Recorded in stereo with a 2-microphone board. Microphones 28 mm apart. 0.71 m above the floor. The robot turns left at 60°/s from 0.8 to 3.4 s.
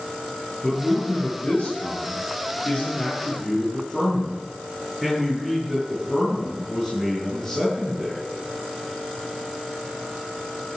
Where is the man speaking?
175° left, 9 m; by 8.2 s 20° left, 9 m.